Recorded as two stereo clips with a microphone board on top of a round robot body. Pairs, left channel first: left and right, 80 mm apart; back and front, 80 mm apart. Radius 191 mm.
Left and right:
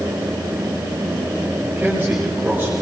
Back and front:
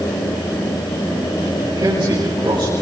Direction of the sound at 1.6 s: 25° right.